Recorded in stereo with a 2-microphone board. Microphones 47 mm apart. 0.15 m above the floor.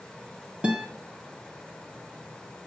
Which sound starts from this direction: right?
A guitar, at 0.6 s.